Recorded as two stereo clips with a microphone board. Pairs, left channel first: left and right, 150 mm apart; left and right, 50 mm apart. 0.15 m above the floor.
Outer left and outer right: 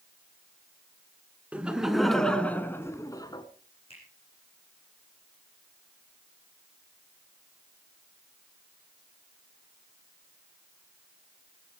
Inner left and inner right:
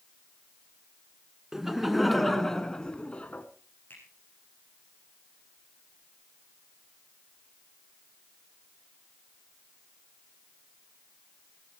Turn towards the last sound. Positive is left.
turn(degrees=40)  # may be behind; listen again after turning